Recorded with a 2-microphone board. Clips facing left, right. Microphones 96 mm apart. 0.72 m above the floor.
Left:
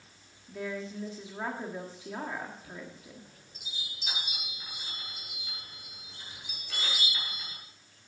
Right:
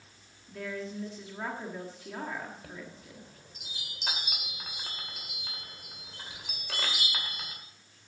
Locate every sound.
0.5 s a woman speaking: 10° left (ahead or behind), 1.4 m
2.6 s a chime: 80° right, 2 m